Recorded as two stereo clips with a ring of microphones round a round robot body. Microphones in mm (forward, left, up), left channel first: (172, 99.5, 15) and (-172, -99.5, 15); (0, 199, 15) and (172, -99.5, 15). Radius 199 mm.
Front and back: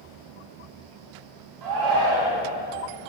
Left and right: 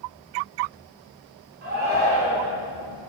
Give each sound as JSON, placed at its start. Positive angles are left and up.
{"t": 1.6, "sound": "a shout", "azimuth_deg": -125, "distance_m": 2.0}